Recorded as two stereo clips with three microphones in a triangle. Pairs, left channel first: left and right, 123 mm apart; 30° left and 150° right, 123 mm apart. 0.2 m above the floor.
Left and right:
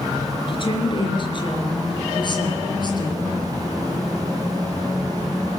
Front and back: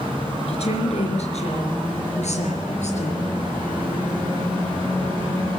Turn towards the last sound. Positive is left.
turn(degrees=40)